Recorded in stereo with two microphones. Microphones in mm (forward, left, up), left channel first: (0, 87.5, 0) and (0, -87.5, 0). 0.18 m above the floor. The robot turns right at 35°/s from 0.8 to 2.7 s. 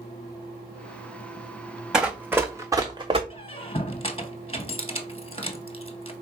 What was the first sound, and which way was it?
Running footsteps, 5° right (ahead or behind).